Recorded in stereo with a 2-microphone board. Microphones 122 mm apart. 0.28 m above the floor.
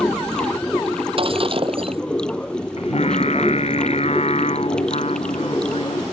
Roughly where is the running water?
Centre.